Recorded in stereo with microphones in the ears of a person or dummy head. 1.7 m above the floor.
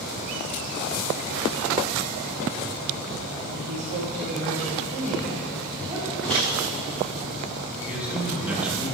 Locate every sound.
3.5 s a woman speaking: 65° right (ahead or behind), 2 m; by 6.1 s 15° right (ahead or behind), 2 m
6.2 s a microwave: 5° left (ahead or behind), 3 m
7.8 s a man speaking: 5° right (ahead or behind), 2 m